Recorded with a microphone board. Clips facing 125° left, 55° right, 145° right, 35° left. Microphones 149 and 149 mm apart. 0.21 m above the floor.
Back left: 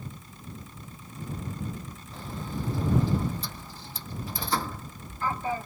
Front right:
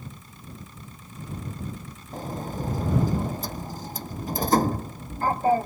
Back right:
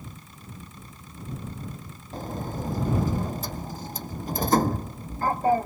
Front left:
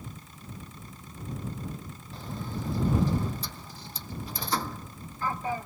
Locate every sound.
2.1 s a sliding door: 100° right